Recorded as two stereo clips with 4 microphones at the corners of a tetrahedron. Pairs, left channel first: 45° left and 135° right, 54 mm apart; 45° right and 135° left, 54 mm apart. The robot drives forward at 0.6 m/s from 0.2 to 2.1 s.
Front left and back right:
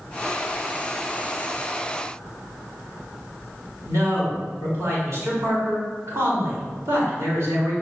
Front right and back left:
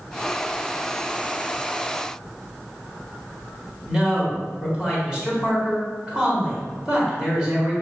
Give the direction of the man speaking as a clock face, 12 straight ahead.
5 o'clock.